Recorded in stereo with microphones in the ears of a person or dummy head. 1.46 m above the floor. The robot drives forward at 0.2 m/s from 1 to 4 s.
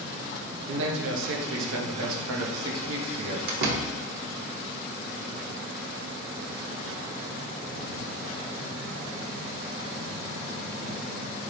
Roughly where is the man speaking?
Right.